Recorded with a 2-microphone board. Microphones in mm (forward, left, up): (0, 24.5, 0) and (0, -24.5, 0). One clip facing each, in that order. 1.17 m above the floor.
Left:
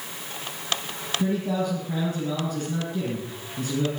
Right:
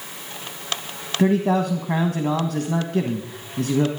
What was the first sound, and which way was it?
A man speaking, 70° right (ahead or behind).